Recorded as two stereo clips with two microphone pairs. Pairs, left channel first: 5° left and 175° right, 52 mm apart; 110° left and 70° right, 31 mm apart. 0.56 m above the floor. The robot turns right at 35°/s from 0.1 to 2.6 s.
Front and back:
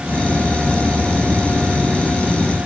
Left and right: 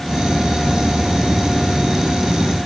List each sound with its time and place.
Only background noise.